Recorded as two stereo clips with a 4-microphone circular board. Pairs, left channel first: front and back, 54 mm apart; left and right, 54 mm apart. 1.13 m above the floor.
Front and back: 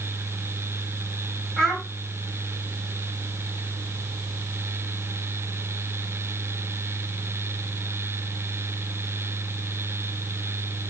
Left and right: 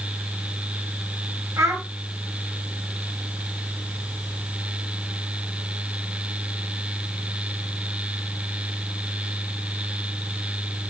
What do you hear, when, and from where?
1.6 s a child speaking: 90° right, 2.0 m